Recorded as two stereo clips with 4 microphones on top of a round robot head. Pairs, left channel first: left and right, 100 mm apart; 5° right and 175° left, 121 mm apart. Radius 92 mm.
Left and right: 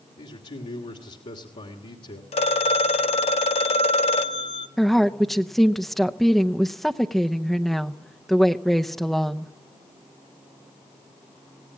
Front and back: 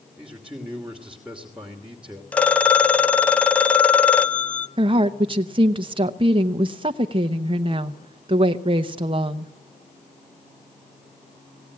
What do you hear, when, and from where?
0.2 s a man speaking: 95° left, 2.5 m
2.3 s a phone ringing: 75° left, 1.2 m
4.8 s a woman speaking: straight behind, 0.9 m